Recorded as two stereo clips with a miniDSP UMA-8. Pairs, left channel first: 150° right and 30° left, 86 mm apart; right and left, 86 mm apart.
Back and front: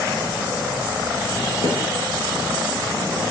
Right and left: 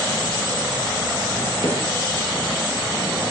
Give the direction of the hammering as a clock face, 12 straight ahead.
4 o'clock.